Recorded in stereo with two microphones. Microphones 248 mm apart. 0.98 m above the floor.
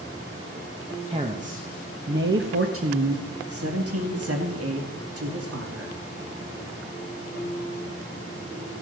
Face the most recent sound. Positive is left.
turn(degrees=-65)  # may be behind; listen again after turning